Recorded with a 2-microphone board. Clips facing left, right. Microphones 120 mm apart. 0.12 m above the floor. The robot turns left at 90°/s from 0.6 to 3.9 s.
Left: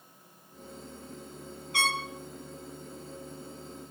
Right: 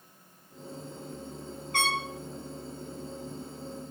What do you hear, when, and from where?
1.7 s a trumpet: 55° right (ahead or behind), 0.8 m; by 2.0 s 65° right (ahead or behind), 0.8 m